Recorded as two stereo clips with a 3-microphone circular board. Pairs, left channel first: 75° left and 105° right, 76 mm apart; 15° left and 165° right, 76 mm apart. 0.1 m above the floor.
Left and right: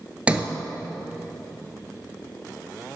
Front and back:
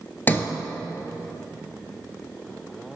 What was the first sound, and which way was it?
A sliding door, 40° right.